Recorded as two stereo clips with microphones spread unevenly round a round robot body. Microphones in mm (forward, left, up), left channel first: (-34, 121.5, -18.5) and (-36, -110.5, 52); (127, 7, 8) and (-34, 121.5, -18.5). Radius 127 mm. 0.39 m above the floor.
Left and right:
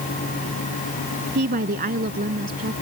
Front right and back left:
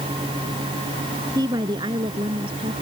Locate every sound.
1.4 s a woman speaking: 140° right; by 2.7 s 145° right